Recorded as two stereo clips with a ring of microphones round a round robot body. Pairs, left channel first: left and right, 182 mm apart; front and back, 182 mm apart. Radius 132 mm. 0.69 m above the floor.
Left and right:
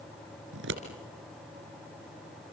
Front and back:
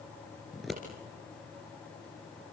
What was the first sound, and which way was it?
Scissors, 90° right.